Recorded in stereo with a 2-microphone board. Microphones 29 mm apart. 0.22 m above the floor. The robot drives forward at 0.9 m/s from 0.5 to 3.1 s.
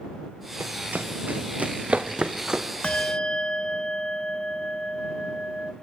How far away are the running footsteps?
About 2 m.